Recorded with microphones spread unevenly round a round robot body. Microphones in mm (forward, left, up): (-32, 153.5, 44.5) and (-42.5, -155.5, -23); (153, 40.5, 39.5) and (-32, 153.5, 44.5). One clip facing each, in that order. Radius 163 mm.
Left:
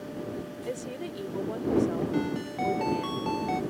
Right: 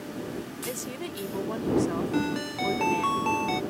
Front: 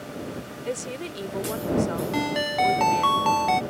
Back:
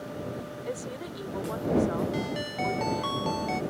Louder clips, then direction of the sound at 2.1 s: Right 1 dB, front 5 dB; 20° right.